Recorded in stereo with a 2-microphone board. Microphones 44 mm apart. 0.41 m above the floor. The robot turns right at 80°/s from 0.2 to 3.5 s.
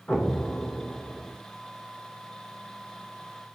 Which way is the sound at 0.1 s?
25° left (ahead or behind).